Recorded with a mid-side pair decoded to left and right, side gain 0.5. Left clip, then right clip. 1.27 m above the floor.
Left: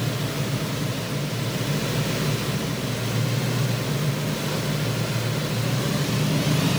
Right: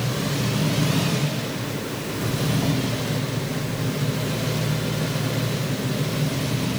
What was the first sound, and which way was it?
Only background noise.